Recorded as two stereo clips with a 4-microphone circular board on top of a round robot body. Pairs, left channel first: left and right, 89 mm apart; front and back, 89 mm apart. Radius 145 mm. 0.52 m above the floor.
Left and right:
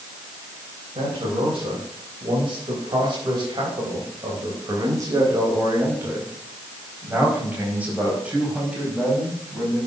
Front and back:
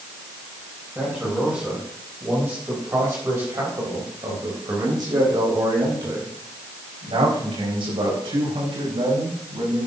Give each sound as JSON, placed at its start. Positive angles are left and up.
{"t": 0.9, "sound": "a man speaking", "azimuth_deg": -100, "distance_m": 4.5}